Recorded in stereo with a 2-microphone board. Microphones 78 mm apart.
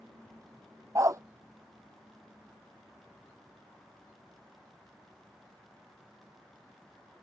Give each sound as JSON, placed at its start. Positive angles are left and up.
{"t": 0.9, "sound": "a dog barking", "side_deg": -45}